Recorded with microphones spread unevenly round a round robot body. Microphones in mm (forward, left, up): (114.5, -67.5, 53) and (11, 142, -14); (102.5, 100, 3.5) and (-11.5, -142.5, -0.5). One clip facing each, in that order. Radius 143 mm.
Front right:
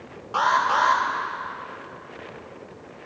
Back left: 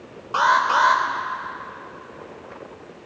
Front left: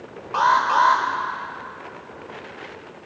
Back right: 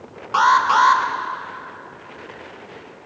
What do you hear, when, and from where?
0.3 s an alarm: 170° right, 0.7 m